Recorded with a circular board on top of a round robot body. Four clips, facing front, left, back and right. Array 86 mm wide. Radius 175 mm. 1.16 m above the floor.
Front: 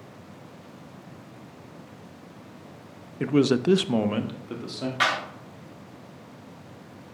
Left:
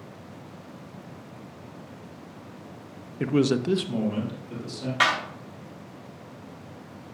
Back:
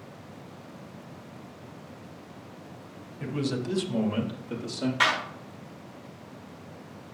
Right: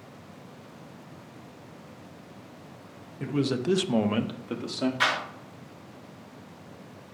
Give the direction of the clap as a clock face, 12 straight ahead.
9 o'clock.